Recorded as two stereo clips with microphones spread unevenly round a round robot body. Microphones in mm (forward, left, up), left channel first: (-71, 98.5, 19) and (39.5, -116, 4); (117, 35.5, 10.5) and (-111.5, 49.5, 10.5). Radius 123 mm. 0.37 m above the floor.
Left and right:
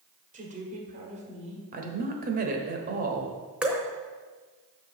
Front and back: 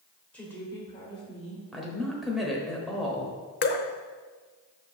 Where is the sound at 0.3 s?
85° right, 1.7 m; by 1.6 s 25° right, 1.6 m.